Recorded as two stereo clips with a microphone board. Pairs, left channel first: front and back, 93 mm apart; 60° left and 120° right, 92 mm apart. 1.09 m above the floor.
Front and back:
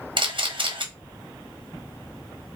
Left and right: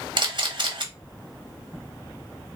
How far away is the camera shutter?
About 1.1 m.